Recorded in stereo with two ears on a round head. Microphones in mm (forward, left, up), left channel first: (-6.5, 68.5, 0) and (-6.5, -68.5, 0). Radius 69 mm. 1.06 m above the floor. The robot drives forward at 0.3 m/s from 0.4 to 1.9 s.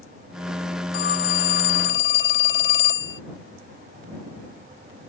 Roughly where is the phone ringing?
Left.